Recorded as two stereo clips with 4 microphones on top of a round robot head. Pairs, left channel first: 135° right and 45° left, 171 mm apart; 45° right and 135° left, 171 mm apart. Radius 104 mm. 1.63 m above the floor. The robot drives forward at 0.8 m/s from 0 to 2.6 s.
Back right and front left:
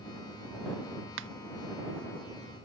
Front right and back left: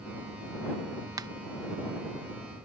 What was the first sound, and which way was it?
A finger snap, 65° left.